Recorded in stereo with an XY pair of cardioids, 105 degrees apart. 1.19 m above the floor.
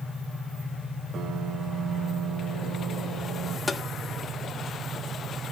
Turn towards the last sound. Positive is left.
turn(degrees=25)